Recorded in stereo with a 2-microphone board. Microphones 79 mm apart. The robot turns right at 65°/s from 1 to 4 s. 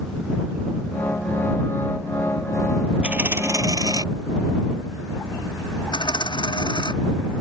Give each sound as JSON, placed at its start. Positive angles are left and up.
{"t": 3.0, "sound": "a dropped coin", "azimuth_deg": -160}
{"t": 5.9, "sound": "a dropped coin", "side_deg": 70}